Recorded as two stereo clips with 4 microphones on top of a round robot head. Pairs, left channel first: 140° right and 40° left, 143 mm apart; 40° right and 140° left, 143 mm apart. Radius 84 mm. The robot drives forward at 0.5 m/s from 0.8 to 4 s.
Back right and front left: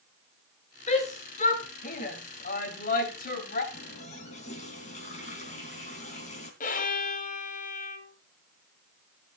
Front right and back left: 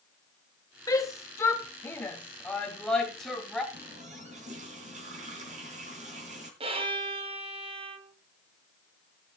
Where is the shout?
105° right, 3 m; by 3.6 s 130° right, 3.5 m.